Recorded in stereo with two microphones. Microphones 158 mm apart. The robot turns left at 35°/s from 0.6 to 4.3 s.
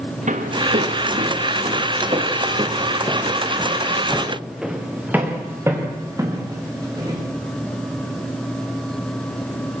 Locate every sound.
0.3 s footsteps: 50° right (ahead or behind), 3.5 m; by 7.2 s 25° right (ahead or behind), 6 m